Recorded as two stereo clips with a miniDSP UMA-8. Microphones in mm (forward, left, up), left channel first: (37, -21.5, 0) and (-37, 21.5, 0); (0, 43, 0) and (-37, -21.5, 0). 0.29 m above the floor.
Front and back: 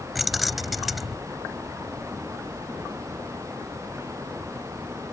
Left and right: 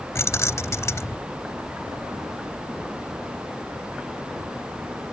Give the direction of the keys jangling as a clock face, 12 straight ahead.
10 o'clock.